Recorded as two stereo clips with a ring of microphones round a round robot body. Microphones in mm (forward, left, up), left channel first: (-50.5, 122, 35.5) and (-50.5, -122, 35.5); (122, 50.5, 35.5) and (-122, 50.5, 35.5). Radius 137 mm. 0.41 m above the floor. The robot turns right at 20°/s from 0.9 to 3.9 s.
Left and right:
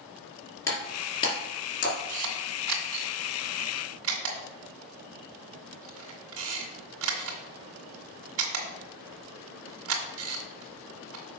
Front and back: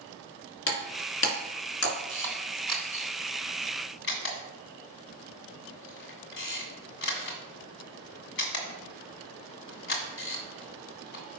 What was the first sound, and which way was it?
Breaking glass, 10° left.